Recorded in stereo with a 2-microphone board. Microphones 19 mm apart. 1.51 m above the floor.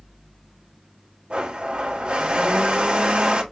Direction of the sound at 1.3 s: 75° right (ahead or behind).